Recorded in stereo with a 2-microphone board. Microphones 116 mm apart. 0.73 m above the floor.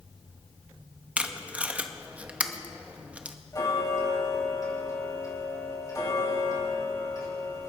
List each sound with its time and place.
1.2 s tape being pulled: 10° right (ahead or behind), 0.7 m
3.5 s ticking: 35° left (ahead or behind), 5 m